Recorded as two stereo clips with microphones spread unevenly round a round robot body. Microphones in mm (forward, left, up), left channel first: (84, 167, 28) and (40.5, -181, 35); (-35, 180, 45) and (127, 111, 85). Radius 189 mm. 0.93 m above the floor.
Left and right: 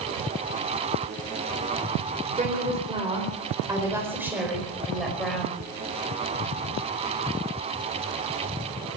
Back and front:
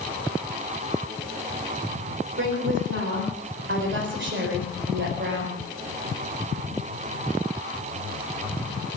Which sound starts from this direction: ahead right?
A woman speaking, at 2.4 s.